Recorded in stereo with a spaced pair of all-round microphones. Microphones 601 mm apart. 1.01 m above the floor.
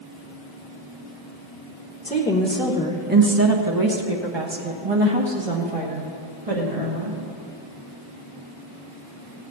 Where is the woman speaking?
10° left (ahead or behind), 1.2 m; by 7.2 s 75° right (ahead or behind), 2.5 m.